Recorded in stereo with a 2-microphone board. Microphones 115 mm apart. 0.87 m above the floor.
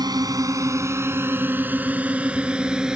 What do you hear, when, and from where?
0.0 s a drone: 35° right (ahead or behind); by 3.0 s 5° right (ahead or behind)